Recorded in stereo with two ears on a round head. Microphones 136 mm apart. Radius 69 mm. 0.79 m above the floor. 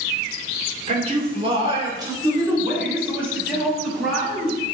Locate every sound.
0.9 s a man speaking: 45° right (ahead or behind), 2.5 m; by 4.6 s 5° right (ahead or behind), 5 m